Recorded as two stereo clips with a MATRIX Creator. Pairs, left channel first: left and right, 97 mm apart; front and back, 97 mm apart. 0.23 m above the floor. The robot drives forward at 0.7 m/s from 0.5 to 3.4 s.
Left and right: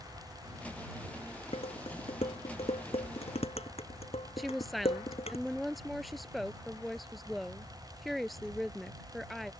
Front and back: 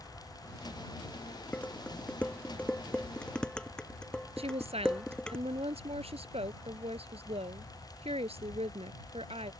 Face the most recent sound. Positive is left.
turn(degrees=180)